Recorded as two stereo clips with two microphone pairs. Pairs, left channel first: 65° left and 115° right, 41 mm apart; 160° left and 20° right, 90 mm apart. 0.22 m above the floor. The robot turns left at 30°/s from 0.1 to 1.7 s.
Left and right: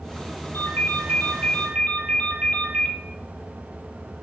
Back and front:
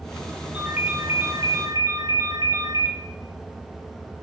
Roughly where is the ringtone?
Ahead left.